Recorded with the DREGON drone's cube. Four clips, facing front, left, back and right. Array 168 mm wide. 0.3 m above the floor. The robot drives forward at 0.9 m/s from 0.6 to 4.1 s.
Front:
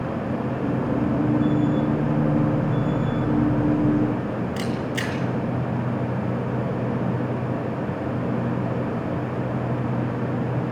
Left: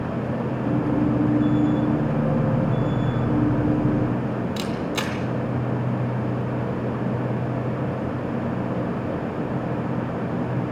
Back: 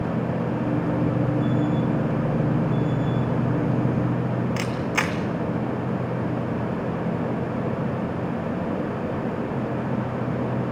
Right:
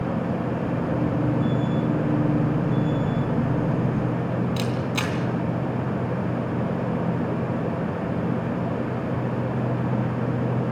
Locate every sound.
4.6 s a camera shutter: straight behind, 2.5 m